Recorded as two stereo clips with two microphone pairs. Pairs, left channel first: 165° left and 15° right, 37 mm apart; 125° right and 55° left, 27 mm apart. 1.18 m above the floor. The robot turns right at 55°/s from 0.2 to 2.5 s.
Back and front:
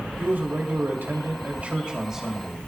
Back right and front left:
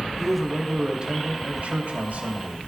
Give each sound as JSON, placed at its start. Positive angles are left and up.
{"t": 0.2, "sound": "a man speaking", "azimuth_deg": -45, "distance_m": 2.5}